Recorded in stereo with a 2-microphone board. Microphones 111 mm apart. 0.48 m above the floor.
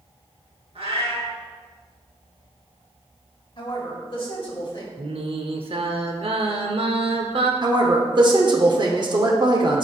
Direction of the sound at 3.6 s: 50° left (ahead or behind).